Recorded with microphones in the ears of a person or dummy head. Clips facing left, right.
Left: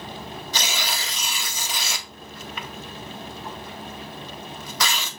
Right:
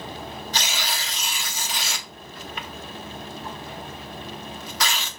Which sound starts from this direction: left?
Tearing paper, at 0.5 s.